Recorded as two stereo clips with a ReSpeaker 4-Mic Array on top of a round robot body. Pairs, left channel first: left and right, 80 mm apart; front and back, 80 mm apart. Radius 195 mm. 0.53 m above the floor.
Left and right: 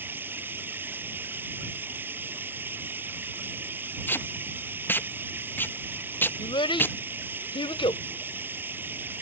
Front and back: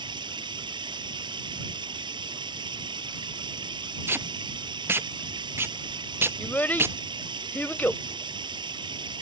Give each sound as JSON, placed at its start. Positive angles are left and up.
{"t": 0.0, "sound": "running water", "azimuth_deg": -155}
{"t": 4.1, "sound": "tape being pulled", "azimuth_deg": 140}
{"t": 6.4, "sound": "a child speaking", "azimuth_deg": 70}